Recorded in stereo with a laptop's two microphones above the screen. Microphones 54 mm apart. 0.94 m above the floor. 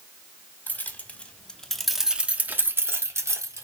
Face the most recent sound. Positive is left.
turn(degrees=-75)  # may be behind; listen again after turning